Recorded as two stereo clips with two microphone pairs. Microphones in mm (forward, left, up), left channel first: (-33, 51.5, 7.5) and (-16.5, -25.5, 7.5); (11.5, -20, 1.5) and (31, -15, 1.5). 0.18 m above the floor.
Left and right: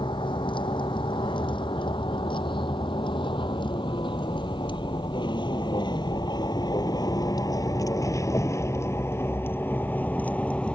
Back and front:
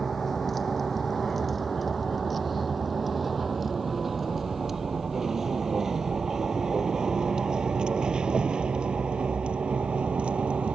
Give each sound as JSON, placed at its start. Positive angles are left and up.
{"t": 0.0, "sound": "a vehicle", "azimuth_deg": 110}